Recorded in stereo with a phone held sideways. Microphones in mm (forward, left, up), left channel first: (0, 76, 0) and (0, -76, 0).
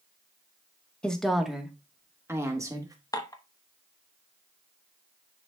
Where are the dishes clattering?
25° left (ahead or behind), 0.9 m.